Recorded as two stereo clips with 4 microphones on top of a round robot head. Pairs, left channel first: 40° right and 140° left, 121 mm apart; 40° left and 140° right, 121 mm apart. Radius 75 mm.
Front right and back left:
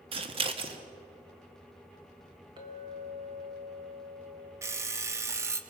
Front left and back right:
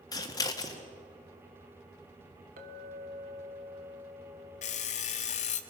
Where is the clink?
160° right, 1.6 m.